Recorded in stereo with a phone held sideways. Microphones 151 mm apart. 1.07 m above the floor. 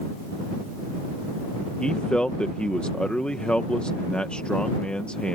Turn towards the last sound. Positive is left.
turn(degrees=5)  # may be behind; listen again after turning